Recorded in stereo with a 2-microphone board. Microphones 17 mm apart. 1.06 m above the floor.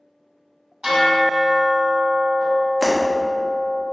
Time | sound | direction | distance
0.8 | a bell | 55° right (ahead or behind) | 1.9 m
2.8 | breaking glass | 40° right (ahead or behind) | 0.8 m